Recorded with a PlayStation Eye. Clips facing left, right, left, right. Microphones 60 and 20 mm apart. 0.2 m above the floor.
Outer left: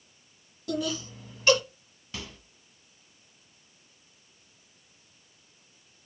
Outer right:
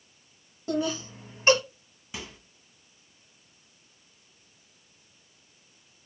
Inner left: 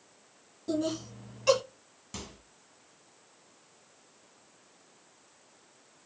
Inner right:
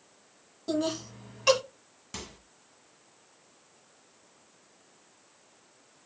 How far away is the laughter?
About 1.3 m.